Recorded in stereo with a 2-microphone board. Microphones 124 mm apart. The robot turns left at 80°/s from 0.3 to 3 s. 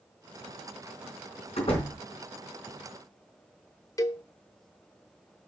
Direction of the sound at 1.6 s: 65° left.